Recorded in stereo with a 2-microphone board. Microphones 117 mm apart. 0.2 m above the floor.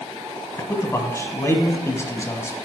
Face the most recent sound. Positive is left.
turn(degrees=25)  # may be behind; listen again after turning